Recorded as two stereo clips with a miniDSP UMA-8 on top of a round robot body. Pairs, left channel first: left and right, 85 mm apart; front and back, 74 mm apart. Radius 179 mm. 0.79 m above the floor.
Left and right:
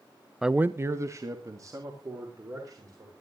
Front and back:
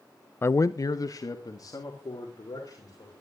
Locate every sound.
0.4 s a man speaking: 5° right, 0.6 m; by 3.1 s 40° right, 4.5 m